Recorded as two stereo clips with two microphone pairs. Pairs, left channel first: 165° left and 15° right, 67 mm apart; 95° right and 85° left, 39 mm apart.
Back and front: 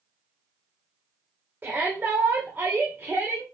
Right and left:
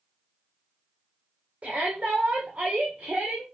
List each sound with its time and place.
1.6 s a shout: 45° left, 2 m